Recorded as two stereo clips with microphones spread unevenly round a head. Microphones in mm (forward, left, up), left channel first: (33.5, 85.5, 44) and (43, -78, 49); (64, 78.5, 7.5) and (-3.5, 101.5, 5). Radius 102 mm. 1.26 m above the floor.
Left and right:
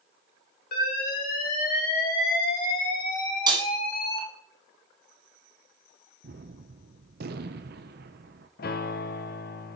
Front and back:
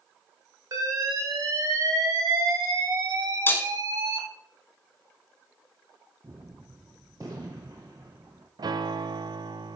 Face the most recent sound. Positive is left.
turn(degrees=130)